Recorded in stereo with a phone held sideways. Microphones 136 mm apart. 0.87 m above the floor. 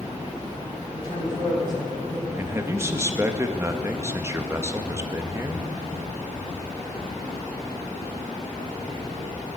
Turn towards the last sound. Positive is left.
turn(degrees=-20)  # may be behind; listen again after turning